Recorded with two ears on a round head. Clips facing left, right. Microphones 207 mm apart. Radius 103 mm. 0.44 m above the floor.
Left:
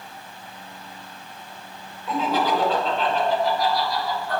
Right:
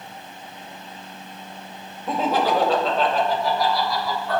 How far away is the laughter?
About 2.5 m.